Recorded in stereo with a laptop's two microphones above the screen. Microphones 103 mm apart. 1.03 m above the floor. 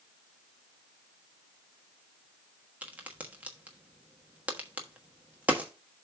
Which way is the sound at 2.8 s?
15° right (ahead or behind).